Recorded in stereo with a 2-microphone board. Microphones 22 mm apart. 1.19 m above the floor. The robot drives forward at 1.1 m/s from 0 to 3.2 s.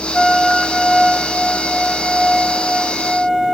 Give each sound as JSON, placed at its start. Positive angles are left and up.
{"t": 0.1, "sound": "a flute", "side_deg": 0, "distance_m": 0.8}